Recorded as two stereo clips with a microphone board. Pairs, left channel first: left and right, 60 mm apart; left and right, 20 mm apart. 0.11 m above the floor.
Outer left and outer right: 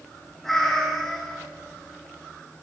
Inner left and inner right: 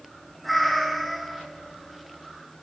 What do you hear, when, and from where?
0.4 s a cat meowing: 5° left (ahead or behind), 0.7 m